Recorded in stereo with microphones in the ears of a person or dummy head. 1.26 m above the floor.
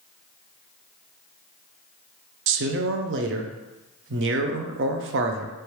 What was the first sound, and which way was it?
A man speaking, 60° right (ahead or behind).